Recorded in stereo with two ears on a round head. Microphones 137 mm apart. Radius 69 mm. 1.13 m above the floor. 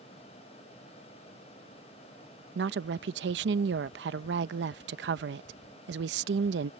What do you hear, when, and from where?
2.5 s a woman speaking: 90° right